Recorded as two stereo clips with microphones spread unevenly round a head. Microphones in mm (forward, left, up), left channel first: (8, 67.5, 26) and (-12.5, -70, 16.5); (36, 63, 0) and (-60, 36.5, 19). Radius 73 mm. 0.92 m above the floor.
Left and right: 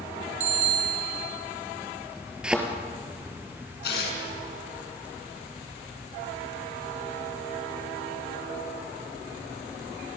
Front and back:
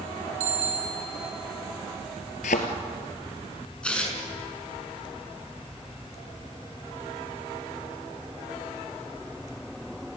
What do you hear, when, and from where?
0.4 s a bicycle bell: 140° right, 5.5 m
2.4 s a thud: 10° right, 2 m
3.8 s tearing paper: 95° left, 7.5 m